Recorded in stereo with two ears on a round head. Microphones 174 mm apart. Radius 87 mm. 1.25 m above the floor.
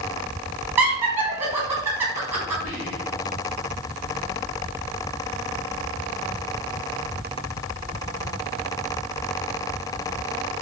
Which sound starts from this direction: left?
Whispering, at 2.6 s.